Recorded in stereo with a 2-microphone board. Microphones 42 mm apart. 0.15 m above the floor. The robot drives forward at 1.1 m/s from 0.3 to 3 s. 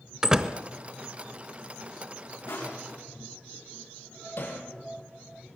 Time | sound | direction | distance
0.2 | a door slam | 15° right (ahead or behind) | 1.0 m
2.5 | crushing | 80° left | 9 m
4.4 | hammering | 55° left (ahead or behind) | 4 m